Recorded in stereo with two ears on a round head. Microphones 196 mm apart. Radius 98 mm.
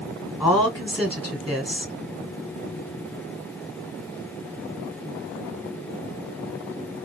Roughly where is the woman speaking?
Centre.